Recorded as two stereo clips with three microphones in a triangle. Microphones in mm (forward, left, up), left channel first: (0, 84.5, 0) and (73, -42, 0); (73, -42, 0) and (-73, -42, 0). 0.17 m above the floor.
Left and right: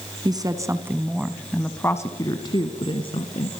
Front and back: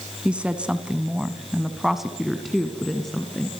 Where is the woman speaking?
105° right, 1.5 m; by 3.5 s 85° left, 2 m.